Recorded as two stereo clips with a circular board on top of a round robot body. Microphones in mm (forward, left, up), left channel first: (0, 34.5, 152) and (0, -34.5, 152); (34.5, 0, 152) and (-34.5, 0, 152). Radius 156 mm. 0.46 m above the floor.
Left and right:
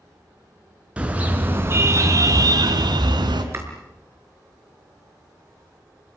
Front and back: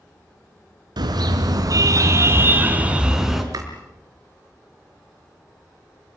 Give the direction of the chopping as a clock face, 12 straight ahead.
5 o'clock.